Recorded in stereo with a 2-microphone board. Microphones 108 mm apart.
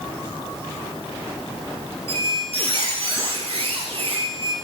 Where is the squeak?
65° right (ahead or behind), 0.6 m.